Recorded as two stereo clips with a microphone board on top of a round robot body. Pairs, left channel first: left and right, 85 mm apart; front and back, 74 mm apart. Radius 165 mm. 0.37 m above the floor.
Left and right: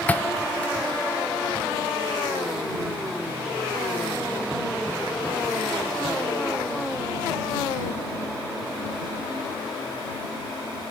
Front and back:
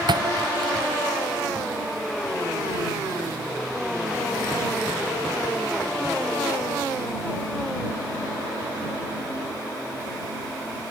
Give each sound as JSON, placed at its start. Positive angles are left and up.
{"t": 0.1, "sound": "a thud", "azimuth_deg": 165}